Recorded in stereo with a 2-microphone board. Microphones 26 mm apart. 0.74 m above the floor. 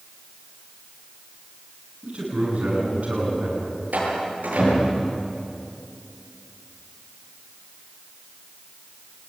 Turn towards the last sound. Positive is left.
turn(degrees=-85)